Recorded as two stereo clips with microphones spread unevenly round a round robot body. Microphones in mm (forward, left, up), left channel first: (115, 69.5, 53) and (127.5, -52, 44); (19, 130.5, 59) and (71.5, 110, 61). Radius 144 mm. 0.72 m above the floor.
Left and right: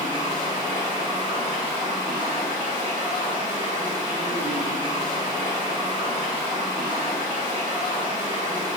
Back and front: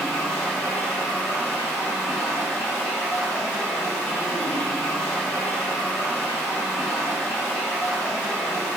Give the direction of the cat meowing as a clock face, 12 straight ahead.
I don't hear a cat meowing.